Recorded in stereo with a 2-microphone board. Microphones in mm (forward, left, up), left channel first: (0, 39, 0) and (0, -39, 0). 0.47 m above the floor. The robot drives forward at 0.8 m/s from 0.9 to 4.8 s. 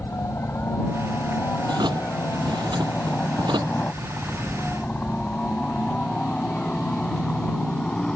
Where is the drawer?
75° right (ahead or behind).